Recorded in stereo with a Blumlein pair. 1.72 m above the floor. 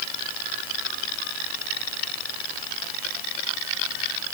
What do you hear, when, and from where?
Only background noise.